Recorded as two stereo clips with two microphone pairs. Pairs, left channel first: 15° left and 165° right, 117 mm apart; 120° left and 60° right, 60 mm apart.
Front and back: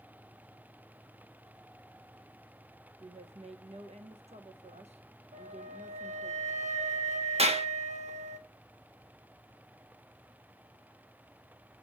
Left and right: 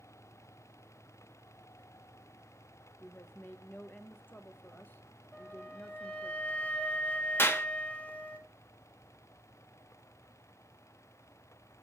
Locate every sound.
3.0 s a woman speaking: 175° left, 1.0 m
5.3 s a flute: 170° right, 1.0 m
7.4 s a clap: 170° left, 1.1 m